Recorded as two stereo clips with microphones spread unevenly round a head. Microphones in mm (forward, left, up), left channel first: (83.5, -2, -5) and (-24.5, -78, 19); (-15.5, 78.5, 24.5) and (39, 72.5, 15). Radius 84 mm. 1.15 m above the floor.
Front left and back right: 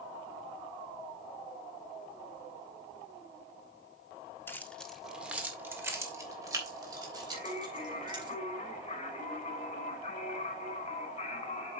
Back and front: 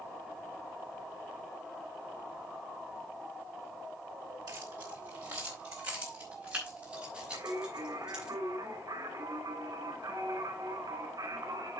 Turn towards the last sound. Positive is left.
turn(degrees=-5)